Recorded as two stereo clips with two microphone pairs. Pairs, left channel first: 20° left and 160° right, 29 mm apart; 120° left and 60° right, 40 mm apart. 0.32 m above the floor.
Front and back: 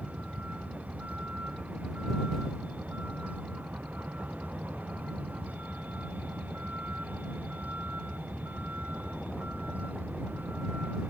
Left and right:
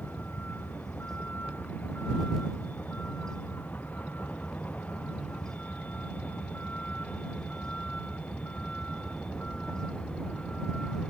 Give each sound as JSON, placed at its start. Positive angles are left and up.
{"t": 0.0, "sound": "a vehicle", "azimuth_deg": 160}